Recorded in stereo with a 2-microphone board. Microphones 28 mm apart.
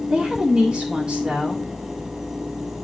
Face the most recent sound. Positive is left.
turn(degrees=-35)  # may be behind; listen again after turning